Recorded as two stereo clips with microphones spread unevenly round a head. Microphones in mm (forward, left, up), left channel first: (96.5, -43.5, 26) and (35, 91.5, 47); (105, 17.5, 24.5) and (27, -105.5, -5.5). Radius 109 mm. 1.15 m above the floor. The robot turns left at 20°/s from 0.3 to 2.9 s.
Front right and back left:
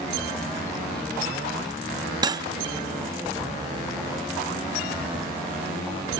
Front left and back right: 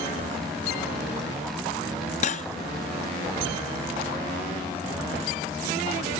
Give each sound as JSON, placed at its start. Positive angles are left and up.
{"t": 2.2, "sound": "cutlery clinking", "azimuth_deg": 60, "distance_m": 0.8}